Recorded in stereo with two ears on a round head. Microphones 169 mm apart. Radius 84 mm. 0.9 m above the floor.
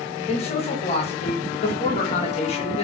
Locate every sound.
0.3 s a man speaking: 35° left (ahead or behind), 1.0 m